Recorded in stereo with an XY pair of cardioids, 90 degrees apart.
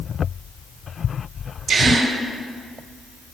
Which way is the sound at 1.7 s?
60° right.